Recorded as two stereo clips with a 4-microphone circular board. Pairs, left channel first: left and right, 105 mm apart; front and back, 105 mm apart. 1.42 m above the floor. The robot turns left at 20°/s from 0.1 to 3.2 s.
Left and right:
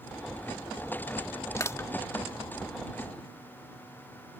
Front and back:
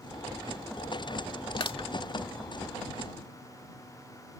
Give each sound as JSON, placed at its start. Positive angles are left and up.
{"t": 1.6, "sound": "crushing", "azimuth_deg": 30}